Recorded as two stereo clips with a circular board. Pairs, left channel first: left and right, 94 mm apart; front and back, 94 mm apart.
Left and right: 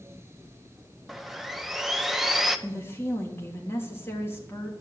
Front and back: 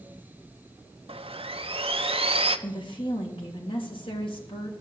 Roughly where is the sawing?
Behind.